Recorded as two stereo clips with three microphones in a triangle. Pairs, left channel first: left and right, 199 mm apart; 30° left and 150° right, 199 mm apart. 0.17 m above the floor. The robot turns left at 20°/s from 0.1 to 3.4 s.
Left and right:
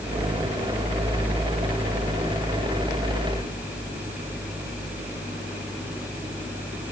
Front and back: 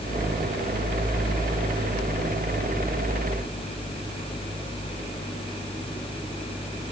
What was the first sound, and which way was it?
Only background noise.